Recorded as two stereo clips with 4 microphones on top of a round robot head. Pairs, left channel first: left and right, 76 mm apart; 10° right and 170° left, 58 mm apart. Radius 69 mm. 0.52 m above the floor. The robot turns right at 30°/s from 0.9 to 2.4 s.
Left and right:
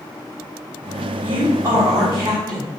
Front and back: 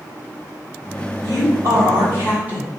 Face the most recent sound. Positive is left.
turn(degrees=-125)